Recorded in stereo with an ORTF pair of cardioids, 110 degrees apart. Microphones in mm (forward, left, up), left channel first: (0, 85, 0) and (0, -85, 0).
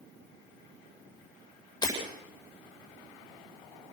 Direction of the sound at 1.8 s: 25° left.